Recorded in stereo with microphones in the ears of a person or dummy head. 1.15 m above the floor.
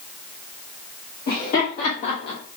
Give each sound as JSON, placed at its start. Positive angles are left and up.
{"t": 1.3, "sound": "laughter", "side_deg": 50, "distance_m": 1.1}